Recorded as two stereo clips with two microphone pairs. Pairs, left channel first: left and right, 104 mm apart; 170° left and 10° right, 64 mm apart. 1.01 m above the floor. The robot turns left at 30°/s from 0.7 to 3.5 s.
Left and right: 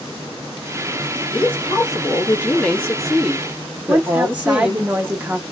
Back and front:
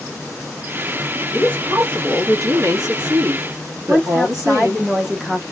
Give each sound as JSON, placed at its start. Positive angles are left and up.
{"t": 1.3, "sound": "a woman speaking", "azimuth_deg": 50, "distance_m": 1.6}
{"t": 3.9, "sound": "a woman speaking", "azimuth_deg": -75, "distance_m": 0.7}